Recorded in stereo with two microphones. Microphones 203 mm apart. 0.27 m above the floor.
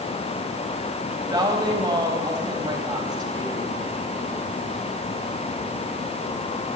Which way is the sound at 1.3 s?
20° right (ahead or behind).